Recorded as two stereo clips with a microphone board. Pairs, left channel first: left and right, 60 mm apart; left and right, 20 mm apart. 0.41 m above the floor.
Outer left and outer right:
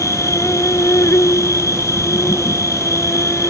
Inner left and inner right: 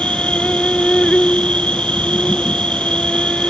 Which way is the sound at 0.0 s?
60° left (ahead or behind).